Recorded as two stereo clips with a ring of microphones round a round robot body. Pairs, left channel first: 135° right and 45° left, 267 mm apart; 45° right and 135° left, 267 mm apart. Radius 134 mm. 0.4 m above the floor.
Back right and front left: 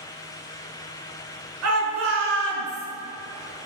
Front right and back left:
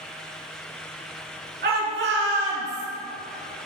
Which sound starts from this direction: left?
A shout, at 1.6 s.